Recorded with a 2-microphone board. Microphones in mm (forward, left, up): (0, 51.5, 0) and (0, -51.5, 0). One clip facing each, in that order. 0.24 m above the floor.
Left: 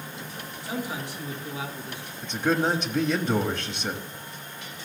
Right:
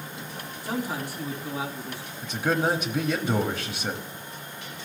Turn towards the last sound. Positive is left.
turn(degrees=-5)  # may be behind; listen again after turning